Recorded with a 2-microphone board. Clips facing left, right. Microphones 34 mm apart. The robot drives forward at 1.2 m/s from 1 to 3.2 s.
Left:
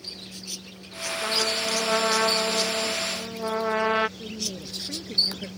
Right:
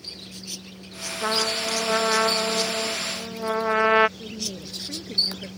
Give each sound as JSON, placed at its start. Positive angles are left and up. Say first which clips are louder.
{"t": 1.2, "sound": "a trumpet", "louder": "right 2 dB", "side_deg": -25}
{"t": 4.2, "sound": "a woman speaking", "louder": "even", "side_deg": 0}